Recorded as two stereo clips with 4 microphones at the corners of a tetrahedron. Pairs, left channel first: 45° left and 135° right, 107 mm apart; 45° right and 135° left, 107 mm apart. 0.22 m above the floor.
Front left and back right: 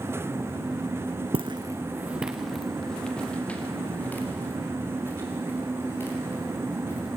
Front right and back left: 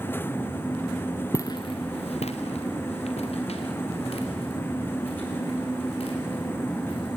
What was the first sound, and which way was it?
Footsteps, 110° right.